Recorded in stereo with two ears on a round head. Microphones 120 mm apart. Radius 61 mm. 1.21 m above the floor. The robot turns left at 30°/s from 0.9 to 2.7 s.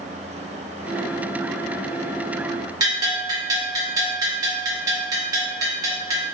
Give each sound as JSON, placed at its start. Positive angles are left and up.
{"t": 2.8, "sound": "a bell", "side_deg": -25, "distance_m": 0.6}